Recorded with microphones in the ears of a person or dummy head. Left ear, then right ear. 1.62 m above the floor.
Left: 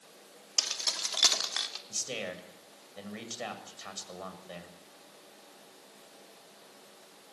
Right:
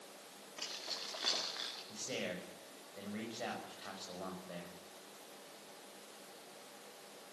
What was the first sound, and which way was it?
Keys jangling, 75° left (ahead or behind).